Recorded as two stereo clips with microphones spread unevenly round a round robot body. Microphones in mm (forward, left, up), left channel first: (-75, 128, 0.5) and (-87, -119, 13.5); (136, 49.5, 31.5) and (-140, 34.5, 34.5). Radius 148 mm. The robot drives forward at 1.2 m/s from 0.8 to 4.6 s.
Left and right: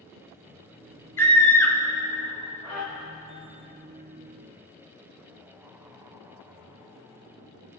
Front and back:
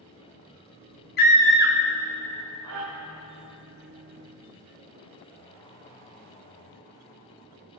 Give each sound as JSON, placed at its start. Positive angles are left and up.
{"t": 1.2, "sound": "a scream", "azimuth_deg": 15, "distance_m": 0.8}